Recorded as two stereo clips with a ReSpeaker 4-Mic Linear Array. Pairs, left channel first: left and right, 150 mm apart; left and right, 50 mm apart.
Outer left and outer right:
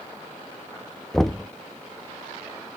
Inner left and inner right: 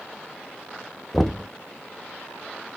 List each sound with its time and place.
1.1 s knocking: centre (ahead or behind), 0.6 m